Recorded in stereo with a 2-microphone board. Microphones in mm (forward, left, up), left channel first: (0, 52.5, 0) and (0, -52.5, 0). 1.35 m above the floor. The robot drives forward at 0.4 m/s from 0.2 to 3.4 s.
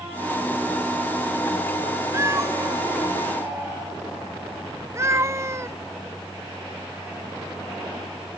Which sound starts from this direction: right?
A cat meowing, at 2.1 s.